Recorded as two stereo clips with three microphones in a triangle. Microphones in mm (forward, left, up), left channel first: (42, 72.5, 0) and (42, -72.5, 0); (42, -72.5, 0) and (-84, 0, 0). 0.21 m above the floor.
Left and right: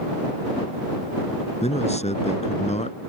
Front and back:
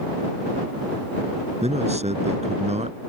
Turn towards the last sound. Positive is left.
turn(degrees=120)